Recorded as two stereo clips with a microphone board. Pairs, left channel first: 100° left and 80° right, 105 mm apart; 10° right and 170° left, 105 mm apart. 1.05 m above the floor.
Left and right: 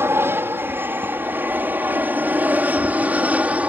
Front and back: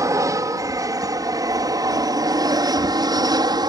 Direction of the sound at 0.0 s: 140° right.